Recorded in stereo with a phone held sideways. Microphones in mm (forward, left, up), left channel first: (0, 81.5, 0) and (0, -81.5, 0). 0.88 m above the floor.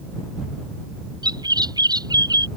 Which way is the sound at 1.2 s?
25° right (ahead or behind).